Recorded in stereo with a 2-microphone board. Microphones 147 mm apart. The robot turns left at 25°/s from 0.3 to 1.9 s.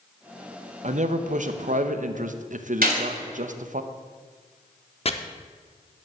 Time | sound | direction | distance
0.8 | a man speaking | 55° right (ahead or behind) | 0.7 m
2.8 | a gunshot | 85° right | 3 m
5.0 | chopping | 45° left (ahead or behind) | 0.6 m